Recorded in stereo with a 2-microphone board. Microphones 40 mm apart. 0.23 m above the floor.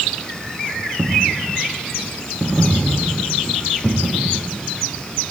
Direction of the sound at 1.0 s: 25° left (ahead or behind).